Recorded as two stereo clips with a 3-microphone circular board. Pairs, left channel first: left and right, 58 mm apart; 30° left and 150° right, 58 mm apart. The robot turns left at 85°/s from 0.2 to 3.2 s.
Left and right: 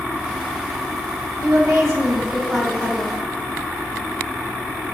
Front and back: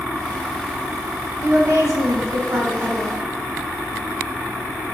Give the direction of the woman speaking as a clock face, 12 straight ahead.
3 o'clock.